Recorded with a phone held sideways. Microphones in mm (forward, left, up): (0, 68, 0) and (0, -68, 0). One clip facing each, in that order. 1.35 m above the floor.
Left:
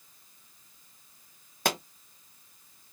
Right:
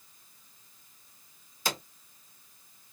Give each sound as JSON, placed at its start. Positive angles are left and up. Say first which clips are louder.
{"t": 1.6, "sound": "a pop", "louder": "left 5 dB", "side_deg": 65, "distance_m": 0.9}